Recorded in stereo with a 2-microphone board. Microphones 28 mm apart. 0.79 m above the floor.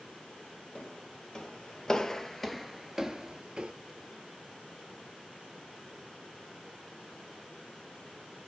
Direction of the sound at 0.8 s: 35° left (ahead or behind).